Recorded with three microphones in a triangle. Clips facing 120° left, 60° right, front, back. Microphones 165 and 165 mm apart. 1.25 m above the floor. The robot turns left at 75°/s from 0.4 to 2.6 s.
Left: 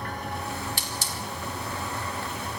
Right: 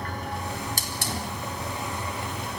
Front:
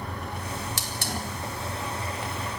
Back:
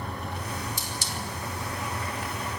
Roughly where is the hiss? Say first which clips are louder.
Right 2 dB, front 2 dB; ahead.